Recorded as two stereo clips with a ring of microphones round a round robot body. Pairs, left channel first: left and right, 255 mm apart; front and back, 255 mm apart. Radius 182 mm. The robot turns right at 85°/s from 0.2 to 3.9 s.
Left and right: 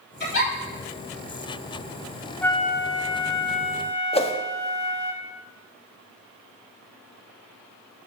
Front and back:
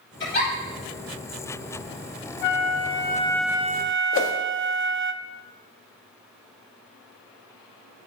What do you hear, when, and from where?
0.2 s a giggle: 40° left, 5.5 m; by 0.5 s 65° left, 5.5 m
2.4 s a flute: 5° left, 0.6 m; by 5.1 s 130° left, 0.6 m
4.1 s a whoosh: 25° left, 1.5 m